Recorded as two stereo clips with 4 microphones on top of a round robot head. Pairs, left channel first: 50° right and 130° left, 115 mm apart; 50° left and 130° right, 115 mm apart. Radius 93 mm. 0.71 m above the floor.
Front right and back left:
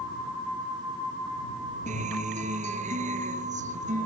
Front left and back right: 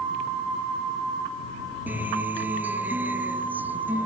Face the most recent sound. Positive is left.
turn(degrees=155)